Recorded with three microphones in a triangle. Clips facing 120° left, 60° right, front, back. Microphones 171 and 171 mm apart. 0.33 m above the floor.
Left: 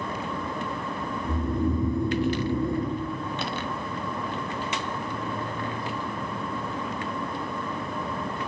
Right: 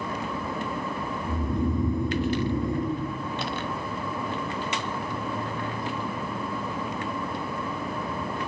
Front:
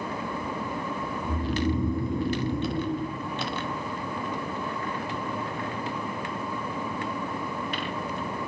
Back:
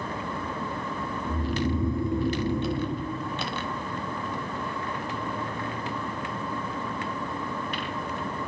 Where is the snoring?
90° left, 0.7 m.